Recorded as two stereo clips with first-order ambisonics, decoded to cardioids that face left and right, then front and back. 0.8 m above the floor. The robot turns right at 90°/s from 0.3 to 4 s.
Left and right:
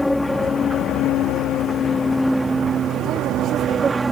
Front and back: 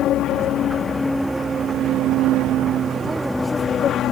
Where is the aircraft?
5° left; by 4.1 s 25° right.